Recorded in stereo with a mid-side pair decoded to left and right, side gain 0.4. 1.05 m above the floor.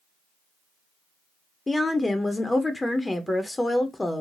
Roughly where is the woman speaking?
Ahead.